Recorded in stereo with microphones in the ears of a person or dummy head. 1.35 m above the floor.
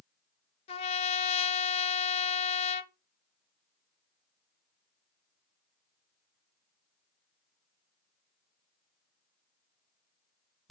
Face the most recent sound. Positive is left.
turn(degrees=40)  # may be behind; listen again after turning